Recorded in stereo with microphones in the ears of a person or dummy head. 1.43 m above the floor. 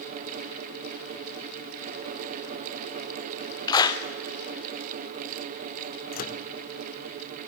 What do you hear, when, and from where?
3.7 s a clap: 20° left (ahead or behind), 1.0 m
6.1 s a microwave: 45° left (ahead or behind), 0.8 m